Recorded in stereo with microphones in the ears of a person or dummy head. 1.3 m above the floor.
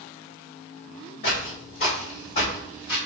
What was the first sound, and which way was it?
Footsteps, 40° left (ahead or behind).